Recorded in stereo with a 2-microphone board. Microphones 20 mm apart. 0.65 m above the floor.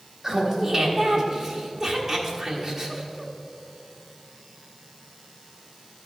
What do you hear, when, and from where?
0.2 s laughter: 40° right (ahead or behind), 1.1 m